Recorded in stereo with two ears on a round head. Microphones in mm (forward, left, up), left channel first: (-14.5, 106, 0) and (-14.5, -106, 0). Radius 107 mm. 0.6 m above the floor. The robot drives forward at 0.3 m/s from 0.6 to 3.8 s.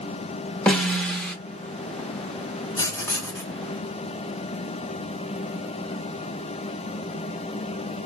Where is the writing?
15° left (ahead or behind), 0.8 m; by 3.5 s 10° left (ahead or behind), 1.0 m.